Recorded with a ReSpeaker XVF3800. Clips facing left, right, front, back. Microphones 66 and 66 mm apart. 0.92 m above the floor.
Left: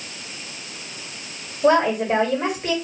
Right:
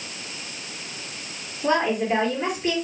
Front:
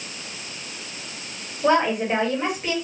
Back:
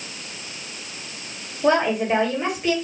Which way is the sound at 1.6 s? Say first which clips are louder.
Left 5 dB, even; 85° left.